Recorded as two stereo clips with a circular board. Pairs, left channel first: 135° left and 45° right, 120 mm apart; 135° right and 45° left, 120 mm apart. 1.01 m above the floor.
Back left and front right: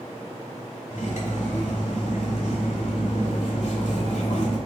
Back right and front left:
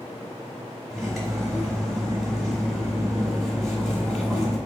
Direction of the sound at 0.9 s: 135° left.